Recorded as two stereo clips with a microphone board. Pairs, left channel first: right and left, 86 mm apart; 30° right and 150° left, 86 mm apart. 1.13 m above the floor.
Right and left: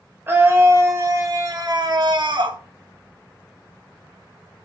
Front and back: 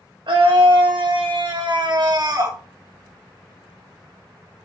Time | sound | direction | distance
0.3 | a scream | 155° left | 2.5 m